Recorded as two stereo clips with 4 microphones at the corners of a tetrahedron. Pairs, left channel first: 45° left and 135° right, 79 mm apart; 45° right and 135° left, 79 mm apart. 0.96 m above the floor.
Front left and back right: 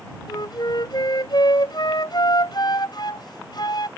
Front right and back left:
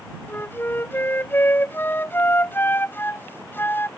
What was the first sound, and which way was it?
A flute, 20° left.